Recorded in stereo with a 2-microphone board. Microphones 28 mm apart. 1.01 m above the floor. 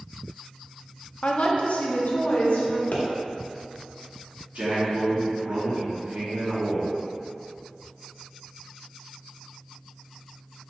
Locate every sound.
1.2 s a woman speaking: 40° left (ahead or behind), 0.5 m; by 2.8 s 70° left (ahead or behind), 1.2 m
2.9 s a pop: 75° left (ahead or behind), 1.0 m
4.5 s a man speaking: 80° right, 1.6 m